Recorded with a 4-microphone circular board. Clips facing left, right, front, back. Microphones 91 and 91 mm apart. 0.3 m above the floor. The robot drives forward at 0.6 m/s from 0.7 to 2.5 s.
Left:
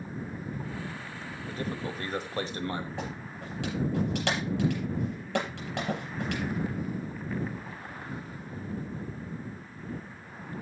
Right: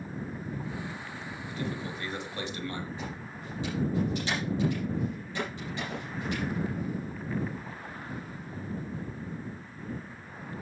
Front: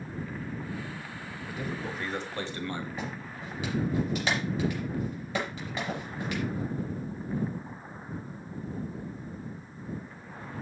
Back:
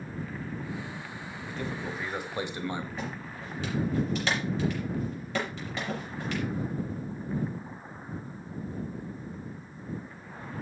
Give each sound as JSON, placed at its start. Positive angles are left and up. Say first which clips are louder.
{"t": 1.5, "sound": "a man speaking", "louder": "left 1 dB, even", "azimuth_deg": 75, "distance_m": 1.3}
{"t": 3.0, "sound": "a clap", "louder": "left 2 dB, even", "azimuth_deg": 85, "distance_m": 7.0}